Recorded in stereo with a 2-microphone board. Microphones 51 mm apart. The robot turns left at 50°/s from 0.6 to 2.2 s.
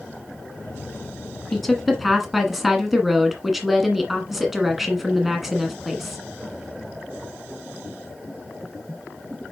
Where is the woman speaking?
5° left (ahead or behind), 1.5 m; by 6.2 s 5° right (ahead or behind), 1.5 m.